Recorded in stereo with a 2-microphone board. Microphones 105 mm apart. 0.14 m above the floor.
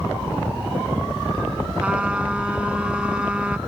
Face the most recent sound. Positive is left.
turn(degrees=-10)  # may be behind; listen again after turning